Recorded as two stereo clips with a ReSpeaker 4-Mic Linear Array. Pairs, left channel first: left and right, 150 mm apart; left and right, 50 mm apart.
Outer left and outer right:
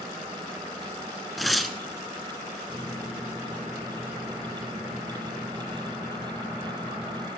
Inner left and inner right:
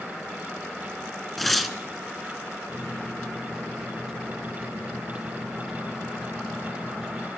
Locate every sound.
1.4 s tearing paper: centre (ahead or behind), 0.8 m
2.7 s a microwave: 15° right (ahead or behind), 1.8 m